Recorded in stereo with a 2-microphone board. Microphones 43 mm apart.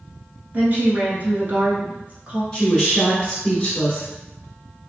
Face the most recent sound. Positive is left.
turn(degrees=15)  # may be behind; listen again after turning